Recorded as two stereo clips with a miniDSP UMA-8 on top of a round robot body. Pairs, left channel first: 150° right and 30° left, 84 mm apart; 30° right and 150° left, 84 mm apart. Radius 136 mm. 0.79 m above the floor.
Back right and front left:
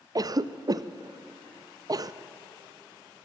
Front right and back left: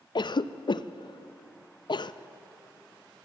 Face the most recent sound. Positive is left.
turn(degrees=-10)